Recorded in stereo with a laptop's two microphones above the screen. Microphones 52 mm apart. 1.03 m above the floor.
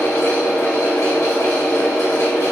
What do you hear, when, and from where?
0.0 s a fan: 80° left, 2.0 m